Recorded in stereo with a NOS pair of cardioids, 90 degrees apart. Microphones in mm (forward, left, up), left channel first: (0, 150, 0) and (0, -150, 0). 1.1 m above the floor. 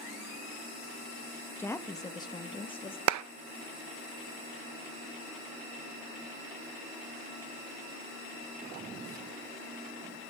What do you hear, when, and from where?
1.6 s a woman speaking: 5° left, 1.2 m; by 3.0 s 20° left, 2 m
3.1 s a clap: 65° right, 0.7 m